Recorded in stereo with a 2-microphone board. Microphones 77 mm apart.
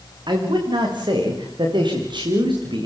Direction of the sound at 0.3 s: 70° right (ahead or behind).